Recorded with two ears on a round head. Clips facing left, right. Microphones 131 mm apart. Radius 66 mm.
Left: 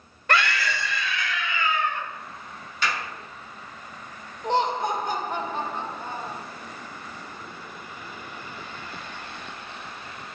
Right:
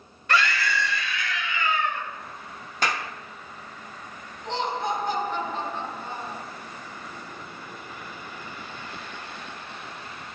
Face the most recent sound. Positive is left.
turn(degrees=40)  # may be behind; listen again after turning